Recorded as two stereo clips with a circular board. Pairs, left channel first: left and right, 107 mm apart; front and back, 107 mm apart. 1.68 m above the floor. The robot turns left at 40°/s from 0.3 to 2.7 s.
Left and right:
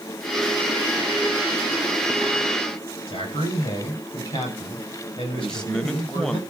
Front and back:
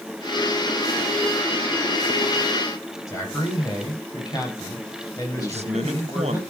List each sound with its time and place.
3.1 s a man speaking: 55° left, 8.5 m
5.4 s a man speaking: 175° left, 1.8 m